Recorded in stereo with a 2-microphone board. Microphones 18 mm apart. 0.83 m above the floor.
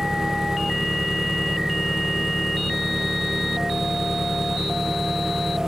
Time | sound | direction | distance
0.0 | an engine running | 15° right (ahead or behind) | ?